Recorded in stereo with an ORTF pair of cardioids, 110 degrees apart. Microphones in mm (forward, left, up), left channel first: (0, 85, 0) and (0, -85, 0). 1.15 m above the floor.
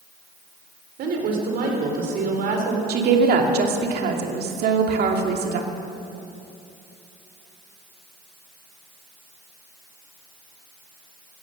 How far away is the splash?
I don't hear a splash.